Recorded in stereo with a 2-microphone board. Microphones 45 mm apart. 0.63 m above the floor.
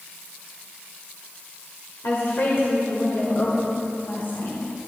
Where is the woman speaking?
70° left (ahead or behind), 1.8 m; by 4.6 s 55° left (ahead or behind), 3 m.